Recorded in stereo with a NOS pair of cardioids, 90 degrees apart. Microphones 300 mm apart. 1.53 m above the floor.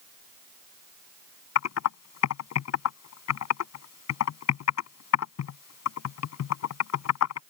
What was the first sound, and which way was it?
Typing on a keyboard, 65° left.